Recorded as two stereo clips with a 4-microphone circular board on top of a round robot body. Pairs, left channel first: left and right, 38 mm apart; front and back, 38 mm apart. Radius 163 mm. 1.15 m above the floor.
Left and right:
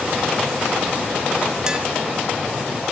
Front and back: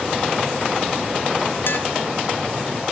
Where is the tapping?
20° right, 1.6 m.